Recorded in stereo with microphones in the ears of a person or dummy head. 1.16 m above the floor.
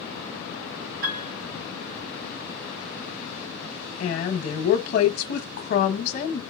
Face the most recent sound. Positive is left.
turn(degrees=60)  # may be behind; listen again after turning